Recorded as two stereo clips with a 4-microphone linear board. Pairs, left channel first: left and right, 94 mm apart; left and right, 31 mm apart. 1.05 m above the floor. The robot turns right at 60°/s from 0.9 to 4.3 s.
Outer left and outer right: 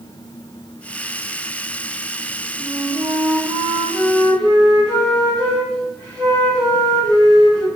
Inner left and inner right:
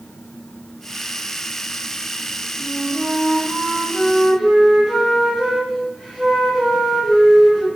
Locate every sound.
2.6 s a flute: 90° right, 1.1 m; by 7.7 s 10° left, 1.1 m